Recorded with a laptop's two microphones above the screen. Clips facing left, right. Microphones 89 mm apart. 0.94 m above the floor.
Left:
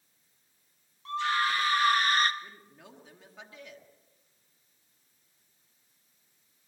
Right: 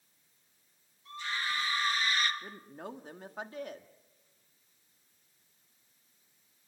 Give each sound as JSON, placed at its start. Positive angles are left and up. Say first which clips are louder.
{"t": 1.1, "sound": "a scream", "louder": "left 9 dB", "side_deg": 75, "distance_m": 1.9}
{"t": 2.4, "sound": "a woman speaking", "louder": "right 6 dB", "side_deg": -45, "distance_m": 1.5}